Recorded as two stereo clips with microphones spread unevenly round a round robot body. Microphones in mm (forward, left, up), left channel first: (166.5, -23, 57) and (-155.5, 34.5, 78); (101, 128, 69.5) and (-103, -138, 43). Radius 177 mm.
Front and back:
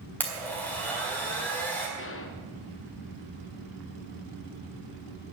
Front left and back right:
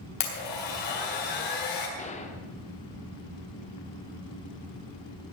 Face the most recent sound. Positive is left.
turn(degrees=-15)